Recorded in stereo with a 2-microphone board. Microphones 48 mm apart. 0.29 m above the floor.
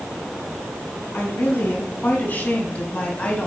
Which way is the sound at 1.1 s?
45° left (ahead or behind).